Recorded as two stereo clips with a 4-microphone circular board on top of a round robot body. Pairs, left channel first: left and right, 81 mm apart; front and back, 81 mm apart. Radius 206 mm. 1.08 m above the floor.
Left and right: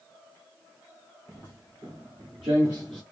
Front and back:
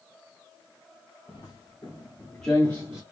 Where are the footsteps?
35° right, 1.8 m; by 3.0 s 175° left, 1.2 m.